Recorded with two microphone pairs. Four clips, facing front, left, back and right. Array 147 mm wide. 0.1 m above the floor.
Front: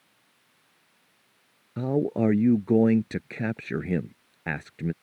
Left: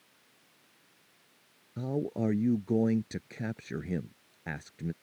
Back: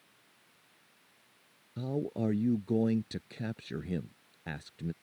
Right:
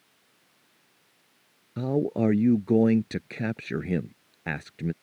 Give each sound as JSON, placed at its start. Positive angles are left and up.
{"t": 1.8, "sound": "a man speaking", "azimuth_deg": -40}